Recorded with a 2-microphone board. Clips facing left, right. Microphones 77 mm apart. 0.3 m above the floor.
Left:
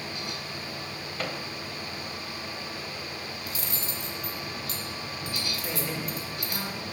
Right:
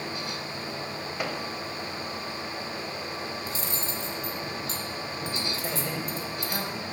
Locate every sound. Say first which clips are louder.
1.2 s a microwave: right 1 dB; 10° right (ahead or behind), 0.9 m
3.5 s cutlery clinking: right 3 dB; 30° right (ahead or behind), 1.5 m
5.6 s a man speaking: right 1 dB; 50° right (ahead or behind), 2 m